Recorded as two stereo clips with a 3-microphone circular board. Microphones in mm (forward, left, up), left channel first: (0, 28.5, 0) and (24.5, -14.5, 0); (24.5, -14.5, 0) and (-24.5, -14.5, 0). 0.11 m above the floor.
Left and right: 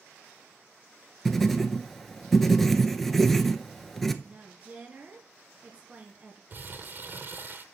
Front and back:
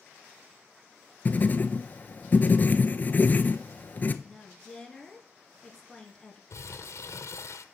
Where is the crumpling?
15° right, 0.7 m.